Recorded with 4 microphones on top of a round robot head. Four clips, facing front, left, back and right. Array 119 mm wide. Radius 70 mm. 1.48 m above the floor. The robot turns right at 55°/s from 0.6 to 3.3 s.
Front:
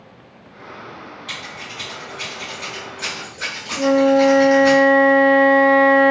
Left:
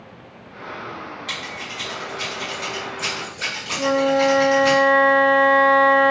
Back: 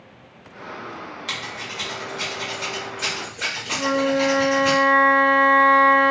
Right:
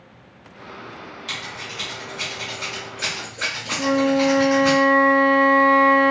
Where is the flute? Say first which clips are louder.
Left 1 dB, front 7 dB; 10° left, 0.5 m.